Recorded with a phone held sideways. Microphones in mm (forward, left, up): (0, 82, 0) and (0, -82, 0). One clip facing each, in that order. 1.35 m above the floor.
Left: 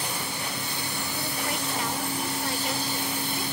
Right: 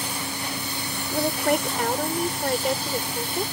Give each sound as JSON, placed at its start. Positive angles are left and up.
{"t": 1.1, "sound": "a woman speaking", "side_deg": -60}